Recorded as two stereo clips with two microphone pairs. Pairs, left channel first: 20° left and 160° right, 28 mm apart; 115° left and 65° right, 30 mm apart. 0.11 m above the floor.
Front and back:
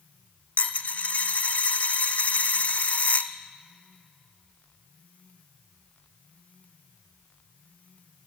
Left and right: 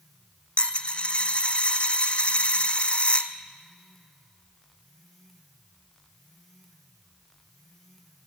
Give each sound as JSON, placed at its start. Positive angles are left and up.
{"t": 0.6, "sound": "a dropped coin", "azimuth_deg": 60, "distance_m": 0.8}